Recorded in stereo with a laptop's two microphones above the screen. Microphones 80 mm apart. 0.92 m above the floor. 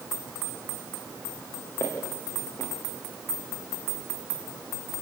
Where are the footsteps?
30° left (ahead or behind), 4.5 m.